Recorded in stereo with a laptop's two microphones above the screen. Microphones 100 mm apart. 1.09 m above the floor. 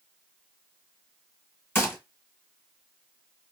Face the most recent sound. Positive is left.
turn(degrees=25)  # may be behind; listen again after turning